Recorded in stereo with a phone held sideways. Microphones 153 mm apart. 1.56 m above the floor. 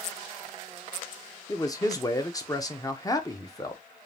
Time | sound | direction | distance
1.5 | a man speaking | 25° left (ahead or behind) | 0.8 m